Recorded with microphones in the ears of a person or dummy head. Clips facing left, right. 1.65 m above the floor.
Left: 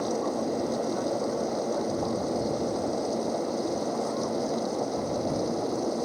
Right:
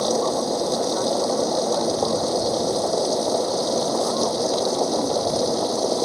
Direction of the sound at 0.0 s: 75° right (ahead or behind).